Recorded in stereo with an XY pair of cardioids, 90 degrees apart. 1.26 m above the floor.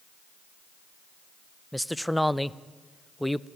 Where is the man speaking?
5° left, 0.6 m.